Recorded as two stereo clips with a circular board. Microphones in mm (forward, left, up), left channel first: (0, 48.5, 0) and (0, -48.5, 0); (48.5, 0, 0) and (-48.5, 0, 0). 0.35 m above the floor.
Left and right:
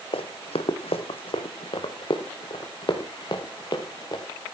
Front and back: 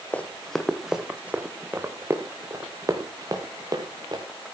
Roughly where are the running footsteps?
Left.